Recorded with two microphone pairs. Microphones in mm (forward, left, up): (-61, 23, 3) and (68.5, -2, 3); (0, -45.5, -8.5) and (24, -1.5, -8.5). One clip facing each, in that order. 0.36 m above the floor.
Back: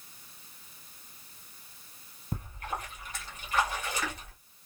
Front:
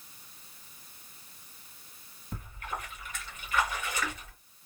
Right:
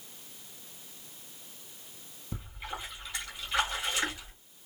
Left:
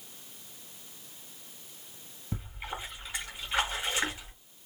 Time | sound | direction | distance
2.3 | a splash | 130° left | 2 m